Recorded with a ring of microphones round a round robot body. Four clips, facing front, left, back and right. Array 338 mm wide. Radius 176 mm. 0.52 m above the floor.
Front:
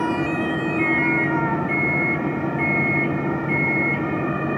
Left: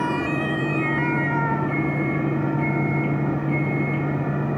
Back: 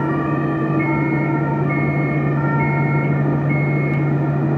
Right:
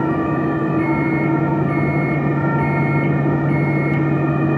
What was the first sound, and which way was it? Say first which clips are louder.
A microwave: right 6 dB, back 2 dB; 10° right.